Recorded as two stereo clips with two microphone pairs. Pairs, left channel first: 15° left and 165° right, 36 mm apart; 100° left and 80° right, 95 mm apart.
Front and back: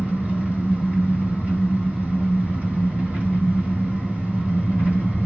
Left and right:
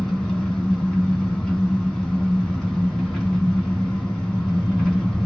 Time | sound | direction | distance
0.0 | an engine running | straight behind | 1.6 m